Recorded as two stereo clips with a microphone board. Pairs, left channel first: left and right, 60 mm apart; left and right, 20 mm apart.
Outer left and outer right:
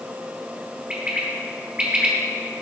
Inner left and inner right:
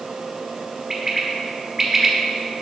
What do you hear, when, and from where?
0.9 s a bird: 20° right (ahead or behind), 1.2 m